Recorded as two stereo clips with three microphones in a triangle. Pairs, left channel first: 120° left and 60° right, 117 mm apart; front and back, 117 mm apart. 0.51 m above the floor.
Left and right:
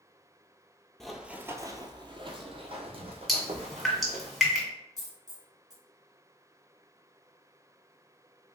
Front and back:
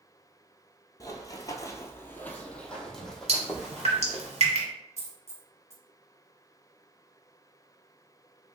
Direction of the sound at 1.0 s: 35° left.